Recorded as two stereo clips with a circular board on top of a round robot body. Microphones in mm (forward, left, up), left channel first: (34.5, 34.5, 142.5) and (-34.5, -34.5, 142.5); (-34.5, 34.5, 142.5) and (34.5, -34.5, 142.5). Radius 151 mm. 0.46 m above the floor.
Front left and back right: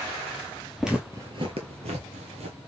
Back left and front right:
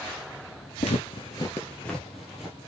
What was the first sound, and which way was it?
Footsteps, 135° left.